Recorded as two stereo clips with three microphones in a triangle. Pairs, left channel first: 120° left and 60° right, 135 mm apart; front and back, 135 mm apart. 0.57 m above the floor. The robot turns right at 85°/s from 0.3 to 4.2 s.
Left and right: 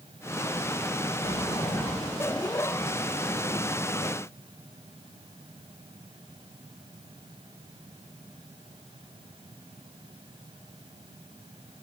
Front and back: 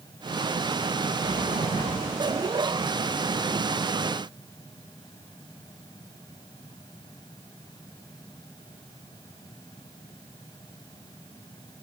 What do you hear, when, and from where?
1.2 s a sliding door: 140° left, 2.5 m; by 2.3 s 130° right, 2.5 m